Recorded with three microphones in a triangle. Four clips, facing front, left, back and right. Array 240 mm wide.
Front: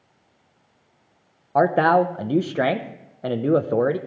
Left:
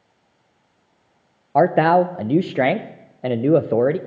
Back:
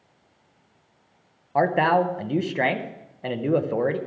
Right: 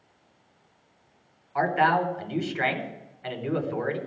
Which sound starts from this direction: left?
A man speaking, at 1.6 s.